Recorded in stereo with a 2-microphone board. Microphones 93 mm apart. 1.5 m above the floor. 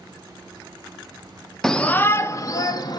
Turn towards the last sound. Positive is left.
turn(degrees=50)  # may be behind; listen again after turning